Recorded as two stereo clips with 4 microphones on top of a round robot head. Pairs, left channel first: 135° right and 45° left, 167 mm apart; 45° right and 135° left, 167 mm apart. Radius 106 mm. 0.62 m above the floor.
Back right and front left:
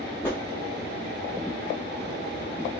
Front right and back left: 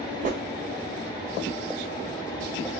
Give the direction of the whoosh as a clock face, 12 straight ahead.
7 o'clock.